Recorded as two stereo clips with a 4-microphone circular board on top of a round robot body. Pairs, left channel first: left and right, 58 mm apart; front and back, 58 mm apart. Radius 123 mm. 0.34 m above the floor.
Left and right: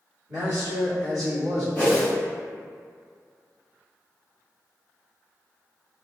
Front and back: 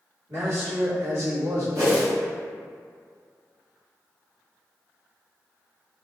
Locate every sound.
0.3 s a man speaking: 155° right, 1.8 m; by 1.6 s 170° left, 2 m
1.8 s a whoosh: 160° left, 1.5 m